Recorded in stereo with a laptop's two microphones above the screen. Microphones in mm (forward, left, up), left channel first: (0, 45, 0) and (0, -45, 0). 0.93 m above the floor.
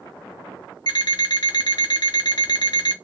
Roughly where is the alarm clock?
Left.